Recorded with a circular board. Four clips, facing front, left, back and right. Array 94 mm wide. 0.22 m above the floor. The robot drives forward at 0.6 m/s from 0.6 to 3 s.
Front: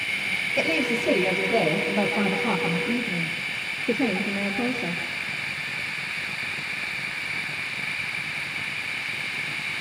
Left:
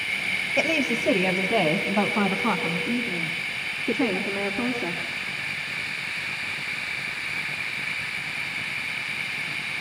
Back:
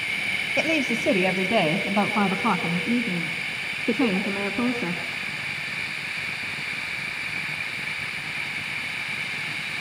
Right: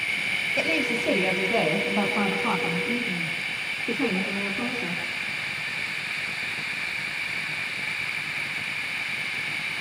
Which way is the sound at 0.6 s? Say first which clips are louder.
Left 2 dB, even; 120° left.